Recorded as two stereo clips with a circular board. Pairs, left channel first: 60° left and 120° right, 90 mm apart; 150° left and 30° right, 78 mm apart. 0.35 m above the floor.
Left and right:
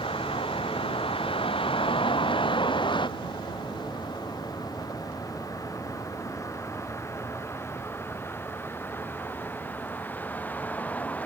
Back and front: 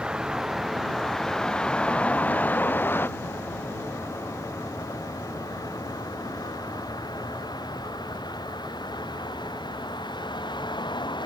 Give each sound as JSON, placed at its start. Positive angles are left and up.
{"t": 0.0, "sound": "a vehicle", "azimuth_deg": 50}